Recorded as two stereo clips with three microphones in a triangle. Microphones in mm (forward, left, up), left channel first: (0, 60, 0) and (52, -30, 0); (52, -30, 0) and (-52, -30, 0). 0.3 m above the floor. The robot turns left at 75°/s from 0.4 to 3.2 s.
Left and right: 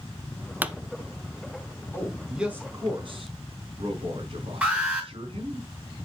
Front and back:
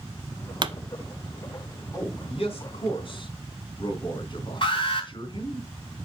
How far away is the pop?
About 0.6 m.